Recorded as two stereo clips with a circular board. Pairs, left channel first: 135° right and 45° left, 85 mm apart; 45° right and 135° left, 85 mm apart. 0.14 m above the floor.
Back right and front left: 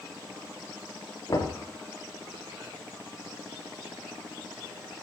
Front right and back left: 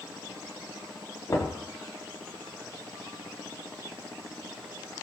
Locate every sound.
1.3 s knocking: 95° right, 5.5 m